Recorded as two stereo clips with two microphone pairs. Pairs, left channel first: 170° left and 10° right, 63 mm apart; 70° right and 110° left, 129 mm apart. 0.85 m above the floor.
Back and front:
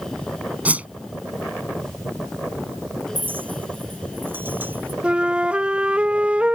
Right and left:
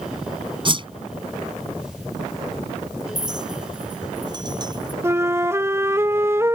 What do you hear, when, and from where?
0.7 s a whoosh: 60° left
3.1 s a clink: 50° left
5.0 s a flute: 50° left